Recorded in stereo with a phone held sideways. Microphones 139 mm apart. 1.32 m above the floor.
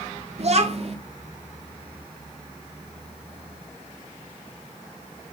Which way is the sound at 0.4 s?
50° right (ahead or behind).